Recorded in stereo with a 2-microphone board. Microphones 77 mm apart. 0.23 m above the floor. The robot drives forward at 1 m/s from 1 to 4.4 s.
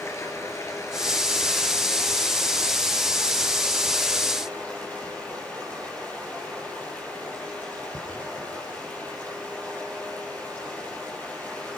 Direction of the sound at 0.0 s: 35° left (ahead or behind).